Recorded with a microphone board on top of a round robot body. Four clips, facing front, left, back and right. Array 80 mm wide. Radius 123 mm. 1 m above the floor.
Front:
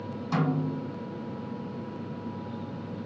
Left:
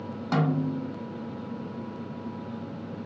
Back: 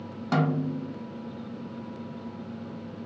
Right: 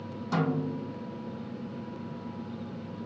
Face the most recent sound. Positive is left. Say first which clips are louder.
# left 3 dB, back 2 dB
turn(degrees=140)